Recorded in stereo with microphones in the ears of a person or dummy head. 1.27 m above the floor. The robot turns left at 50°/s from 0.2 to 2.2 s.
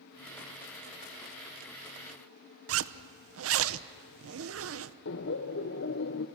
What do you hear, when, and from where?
2.7 s a zipper: 75° right (ahead or behind), 0.7 m
5.0 s laughter: 55° left (ahead or behind), 0.8 m